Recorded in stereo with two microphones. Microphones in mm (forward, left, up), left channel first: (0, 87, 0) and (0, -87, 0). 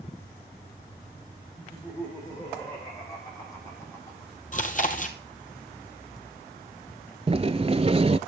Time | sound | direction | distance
1.6 | laughter | 25° left (ahead or behind) | 9.5 m
4.5 | chewing | 50° left (ahead or behind) | 1.9 m
7.3 | a sliding door | 35° right (ahead or behind) | 0.6 m